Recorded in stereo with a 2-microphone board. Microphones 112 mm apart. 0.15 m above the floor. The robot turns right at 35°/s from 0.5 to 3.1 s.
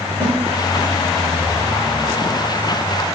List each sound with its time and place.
0.2 s a snare drum: 45° right (ahead or behind), 1.0 m